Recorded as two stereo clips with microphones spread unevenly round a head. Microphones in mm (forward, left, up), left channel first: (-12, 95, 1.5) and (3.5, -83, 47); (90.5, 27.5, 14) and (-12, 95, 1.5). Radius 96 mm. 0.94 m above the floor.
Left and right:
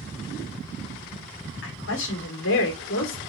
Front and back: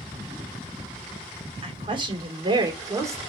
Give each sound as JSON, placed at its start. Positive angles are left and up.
{"t": 1.6, "sound": "a woman speaking", "azimuth_deg": 100, "distance_m": 2.5}